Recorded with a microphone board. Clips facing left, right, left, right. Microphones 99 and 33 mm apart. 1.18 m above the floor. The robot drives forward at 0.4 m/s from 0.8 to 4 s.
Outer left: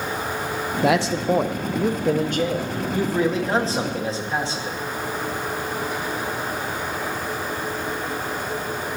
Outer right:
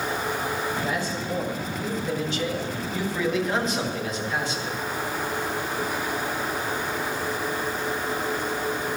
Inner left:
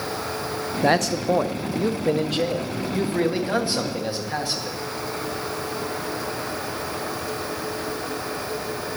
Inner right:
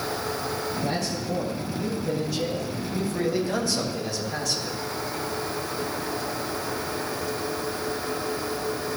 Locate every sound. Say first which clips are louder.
0.8 s a man speaking: outer left 8 dB, inner left 8 dB; 85° left, 0.7 m; by 4.8 s 30° left (ahead or behind), 1.4 m